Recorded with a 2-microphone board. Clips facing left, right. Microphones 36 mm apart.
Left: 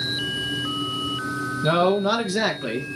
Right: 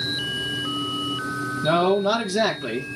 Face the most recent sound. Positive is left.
turn(degrees=15)  # may be behind; listen again after turning